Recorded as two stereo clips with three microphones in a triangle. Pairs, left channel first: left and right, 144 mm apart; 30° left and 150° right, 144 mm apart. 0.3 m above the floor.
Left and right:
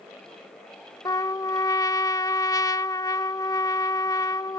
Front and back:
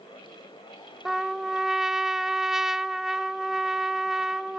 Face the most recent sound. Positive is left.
turn(degrees=125)